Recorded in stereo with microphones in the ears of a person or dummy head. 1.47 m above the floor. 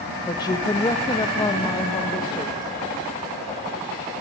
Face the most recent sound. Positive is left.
turn(degrees=15)  # may be behind; listen again after turning